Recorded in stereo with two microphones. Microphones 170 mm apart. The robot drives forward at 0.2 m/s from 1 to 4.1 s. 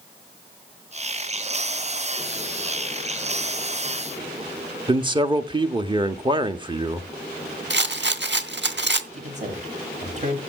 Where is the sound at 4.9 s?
25° right (ahead or behind), 0.8 m.